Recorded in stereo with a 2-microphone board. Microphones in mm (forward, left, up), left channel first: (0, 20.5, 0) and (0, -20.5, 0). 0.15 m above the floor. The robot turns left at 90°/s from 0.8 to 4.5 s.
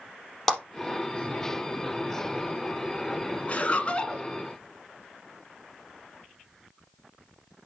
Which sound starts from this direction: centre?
A clap, at 0.5 s.